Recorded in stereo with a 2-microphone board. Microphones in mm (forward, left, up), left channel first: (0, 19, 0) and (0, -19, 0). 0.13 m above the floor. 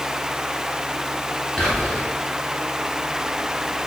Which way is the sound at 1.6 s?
20° left (ahead or behind).